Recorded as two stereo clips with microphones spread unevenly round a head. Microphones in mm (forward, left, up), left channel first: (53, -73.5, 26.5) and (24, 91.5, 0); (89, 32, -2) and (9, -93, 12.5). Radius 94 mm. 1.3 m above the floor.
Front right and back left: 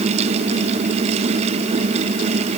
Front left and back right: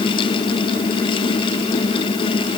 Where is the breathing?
I don't hear breathing.